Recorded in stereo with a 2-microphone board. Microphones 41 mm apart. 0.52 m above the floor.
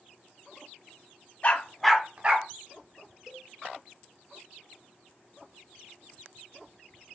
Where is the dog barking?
40° left (ahead or behind), 0.9 m; by 2.5 s 45° right (ahead or behind), 1.2 m.